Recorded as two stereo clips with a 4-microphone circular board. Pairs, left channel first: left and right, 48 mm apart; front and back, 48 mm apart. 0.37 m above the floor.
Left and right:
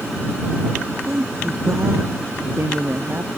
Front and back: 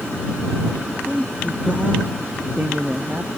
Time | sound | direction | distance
1.1 | a woman speaking | 115° right | ?